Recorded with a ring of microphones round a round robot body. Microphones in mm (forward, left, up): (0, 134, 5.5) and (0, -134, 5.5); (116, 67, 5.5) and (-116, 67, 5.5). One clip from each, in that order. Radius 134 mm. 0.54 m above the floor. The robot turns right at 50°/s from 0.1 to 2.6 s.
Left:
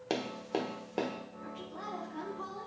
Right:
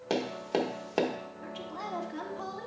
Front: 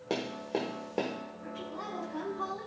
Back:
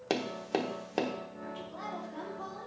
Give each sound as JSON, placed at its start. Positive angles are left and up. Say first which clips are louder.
{"t": 0.1, "sound": "tapping", "louder": "right 4 dB, back 1 dB", "azimuth_deg": 170, "distance_m": 1.0}
{"t": 1.4, "sound": "a woman speaking", "louder": "right 4 dB, front 2 dB", "azimuth_deg": -120, "distance_m": 1.6}